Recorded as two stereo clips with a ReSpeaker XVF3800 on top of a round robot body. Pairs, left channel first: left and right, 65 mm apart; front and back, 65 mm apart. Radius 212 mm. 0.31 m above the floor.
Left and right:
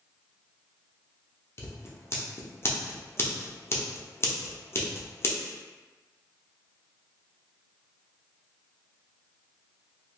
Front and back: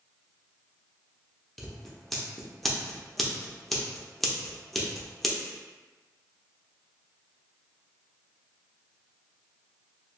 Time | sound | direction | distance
1.6 | scissors | 85° left | 1.0 m